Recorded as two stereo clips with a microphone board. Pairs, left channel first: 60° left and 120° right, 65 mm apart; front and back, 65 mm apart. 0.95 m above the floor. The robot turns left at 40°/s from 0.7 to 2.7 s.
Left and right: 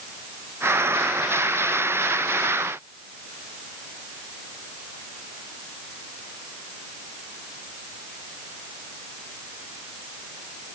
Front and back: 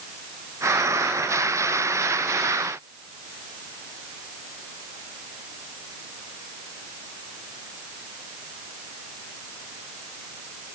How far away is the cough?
No cough in this recording.